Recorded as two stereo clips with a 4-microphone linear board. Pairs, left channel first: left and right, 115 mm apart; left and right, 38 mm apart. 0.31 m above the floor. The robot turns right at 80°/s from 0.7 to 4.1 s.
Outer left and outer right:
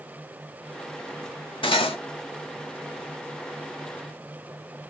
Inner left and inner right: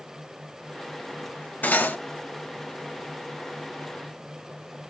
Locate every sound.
1.6 s cutlery clinking: 50° left (ahead or behind), 0.7 m